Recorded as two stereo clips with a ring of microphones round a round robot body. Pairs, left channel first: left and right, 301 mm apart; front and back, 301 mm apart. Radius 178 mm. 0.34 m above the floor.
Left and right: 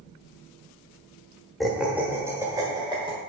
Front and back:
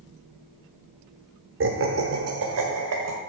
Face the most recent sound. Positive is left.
turn(degrees=-160)